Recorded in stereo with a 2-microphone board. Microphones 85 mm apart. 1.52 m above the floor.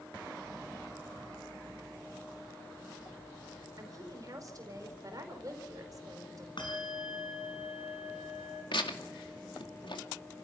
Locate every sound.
3.8 s a woman speaking: 45° right (ahead or behind), 4.5 m
6.6 s a bell: 70° left (ahead or behind), 5.5 m
8.7 s tearing paper: 75° left (ahead or behind), 2 m